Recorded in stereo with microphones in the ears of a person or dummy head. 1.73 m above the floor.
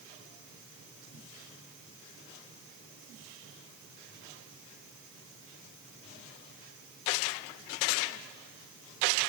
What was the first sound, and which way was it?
Only background noise.